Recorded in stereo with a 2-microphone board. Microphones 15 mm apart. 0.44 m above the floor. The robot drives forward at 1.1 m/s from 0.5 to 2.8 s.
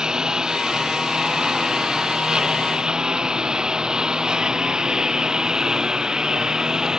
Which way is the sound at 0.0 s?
45° right (ahead or behind).